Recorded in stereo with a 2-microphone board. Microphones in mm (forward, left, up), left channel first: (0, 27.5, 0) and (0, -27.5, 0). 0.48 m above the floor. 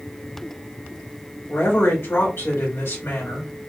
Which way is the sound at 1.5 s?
50° left (ahead or behind).